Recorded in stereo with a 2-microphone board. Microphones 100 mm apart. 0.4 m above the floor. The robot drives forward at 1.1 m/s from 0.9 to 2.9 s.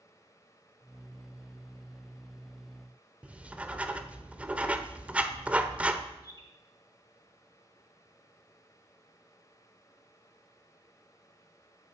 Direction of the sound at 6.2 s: 35° left (ahead or behind).